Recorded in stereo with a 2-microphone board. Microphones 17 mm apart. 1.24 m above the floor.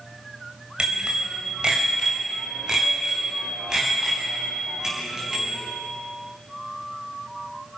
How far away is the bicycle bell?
About 4 m.